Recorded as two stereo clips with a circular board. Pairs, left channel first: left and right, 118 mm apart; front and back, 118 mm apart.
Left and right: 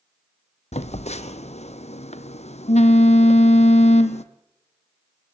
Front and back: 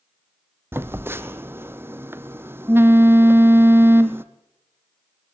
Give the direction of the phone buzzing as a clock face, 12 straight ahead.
8 o'clock.